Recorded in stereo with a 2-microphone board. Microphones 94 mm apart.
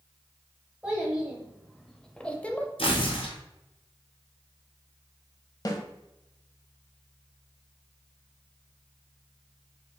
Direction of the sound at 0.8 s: 10° right (ahead or behind).